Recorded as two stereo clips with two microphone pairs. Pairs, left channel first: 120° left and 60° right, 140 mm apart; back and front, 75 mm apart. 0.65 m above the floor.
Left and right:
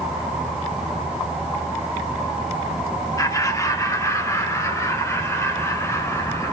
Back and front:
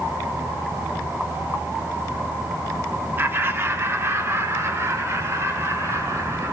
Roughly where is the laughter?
Ahead left.